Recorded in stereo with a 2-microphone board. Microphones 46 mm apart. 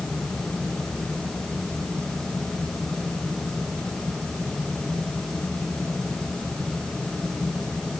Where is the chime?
I don't hear a chime.